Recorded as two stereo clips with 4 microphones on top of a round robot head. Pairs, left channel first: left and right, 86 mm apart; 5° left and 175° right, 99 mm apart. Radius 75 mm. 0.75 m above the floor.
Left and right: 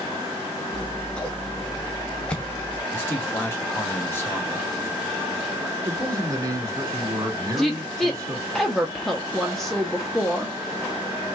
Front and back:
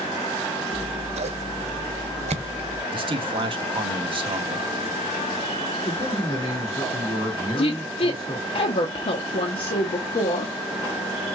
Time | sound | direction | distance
0.7 | scissors | 170° left | 0.6 m
2.9 | a man speaking | 155° left | 1.3 m
5.8 | a man speaking | 45° right | 3 m
7.6 | a woman speaking | straight ahead | 0.9 m